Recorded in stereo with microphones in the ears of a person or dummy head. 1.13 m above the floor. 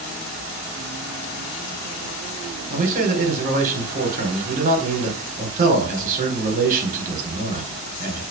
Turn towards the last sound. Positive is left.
turn(degrees=-45)  # may be behind; listen again after turning